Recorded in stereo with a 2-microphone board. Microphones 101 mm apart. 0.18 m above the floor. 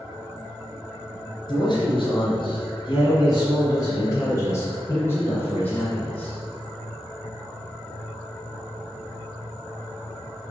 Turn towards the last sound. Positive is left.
turn(degrees=10)  # may be behind; listen again after turning